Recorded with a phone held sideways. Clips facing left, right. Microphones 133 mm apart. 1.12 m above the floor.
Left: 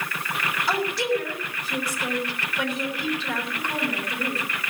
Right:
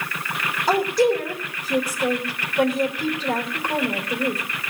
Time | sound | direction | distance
0.7 | a woman speaking | 40° right (ahead or behind) | 3.5 m